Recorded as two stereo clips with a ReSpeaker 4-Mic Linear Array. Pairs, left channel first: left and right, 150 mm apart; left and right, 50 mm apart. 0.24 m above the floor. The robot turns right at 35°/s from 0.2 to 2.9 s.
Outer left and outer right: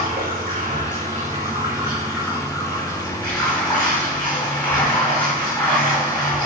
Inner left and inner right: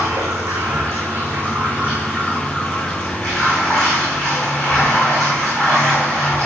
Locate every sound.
0.0 s running water: 85° right, 5 m; by 6.5 s 10° left, 5 m